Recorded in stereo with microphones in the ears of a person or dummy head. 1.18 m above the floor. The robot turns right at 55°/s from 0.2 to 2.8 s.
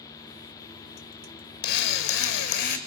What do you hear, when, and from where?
1.6 s a drill: 60° left, 2 m; by 2.8 s 120° left, 2 m